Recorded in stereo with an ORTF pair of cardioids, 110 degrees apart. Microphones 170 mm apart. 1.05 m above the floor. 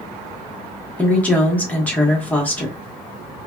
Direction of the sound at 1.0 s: 10° left.